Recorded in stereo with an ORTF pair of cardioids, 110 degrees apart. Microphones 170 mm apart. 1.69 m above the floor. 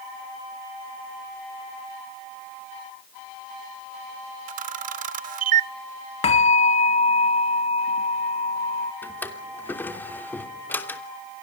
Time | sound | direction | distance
4.5 | a camera shutter | 50° right | 0.7 m
6.2 | a bell | 40° left | 2.5 m
9.0 | a drawer | 10° left | 3 m